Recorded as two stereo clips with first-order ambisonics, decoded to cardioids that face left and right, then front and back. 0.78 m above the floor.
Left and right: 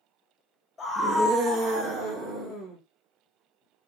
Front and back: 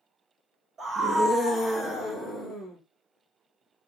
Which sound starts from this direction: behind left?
A scream, at 0.8 s.